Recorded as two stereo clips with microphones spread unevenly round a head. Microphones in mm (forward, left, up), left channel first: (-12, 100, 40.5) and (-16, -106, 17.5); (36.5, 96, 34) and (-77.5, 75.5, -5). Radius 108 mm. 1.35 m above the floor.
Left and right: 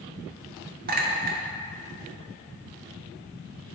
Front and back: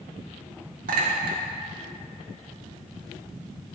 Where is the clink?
140° right, 1.0 m.